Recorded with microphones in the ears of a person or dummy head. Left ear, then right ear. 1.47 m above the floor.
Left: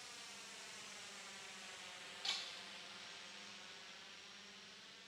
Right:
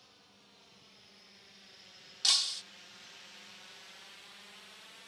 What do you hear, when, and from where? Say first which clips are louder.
0.0 s a drone: left 8 dB; 65° left (ahead or behind); by 5.1 s 30° right (ahead or behind)
2.2 s breaking glass: right 15 dB; 45° right (ahead or behind)